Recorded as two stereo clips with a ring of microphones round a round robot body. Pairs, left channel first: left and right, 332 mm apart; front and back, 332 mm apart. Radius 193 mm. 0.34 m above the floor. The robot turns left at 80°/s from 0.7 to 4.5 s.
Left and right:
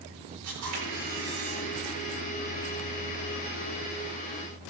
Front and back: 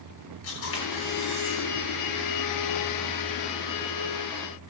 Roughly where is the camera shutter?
Ahead right.